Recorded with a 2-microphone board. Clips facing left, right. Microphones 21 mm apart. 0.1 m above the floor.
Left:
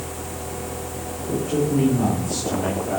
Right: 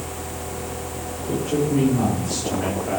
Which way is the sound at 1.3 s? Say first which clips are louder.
Even; 80° right.